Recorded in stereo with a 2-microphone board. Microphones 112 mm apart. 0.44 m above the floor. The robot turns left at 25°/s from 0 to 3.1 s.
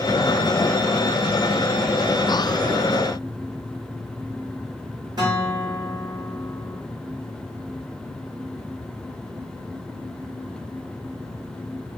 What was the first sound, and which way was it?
A guitar, 35° right (ahead or behind).